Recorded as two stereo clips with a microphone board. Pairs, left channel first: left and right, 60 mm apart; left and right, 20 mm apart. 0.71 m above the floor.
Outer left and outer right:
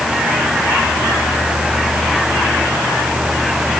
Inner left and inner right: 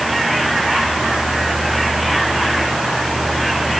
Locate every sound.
Only background noise.